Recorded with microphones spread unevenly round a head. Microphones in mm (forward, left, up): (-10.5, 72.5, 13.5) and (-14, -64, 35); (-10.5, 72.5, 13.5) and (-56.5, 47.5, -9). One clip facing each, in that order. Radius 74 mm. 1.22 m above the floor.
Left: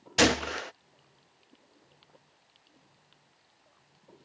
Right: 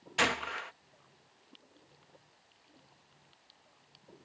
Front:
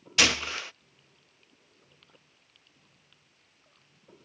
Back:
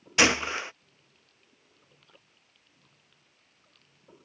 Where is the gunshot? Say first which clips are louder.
Left 8 dB, back 3 dB; 135° left.